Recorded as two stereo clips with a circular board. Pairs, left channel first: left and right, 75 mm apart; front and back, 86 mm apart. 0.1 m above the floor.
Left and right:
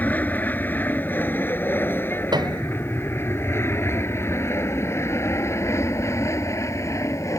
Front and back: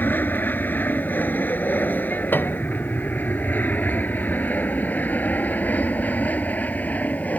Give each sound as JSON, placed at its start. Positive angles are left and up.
{"t": 0.0, "sound": "an aircraft", "azimuth_deg": 45}
{"t": 2.3, "sound": "a piano", "azimuth_deg": -70}